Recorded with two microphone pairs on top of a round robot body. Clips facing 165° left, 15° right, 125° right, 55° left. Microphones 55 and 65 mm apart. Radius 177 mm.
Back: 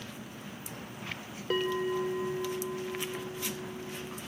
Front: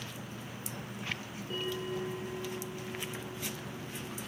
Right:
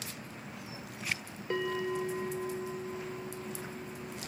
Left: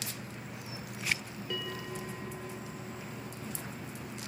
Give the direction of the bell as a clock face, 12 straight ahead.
6 o'clock.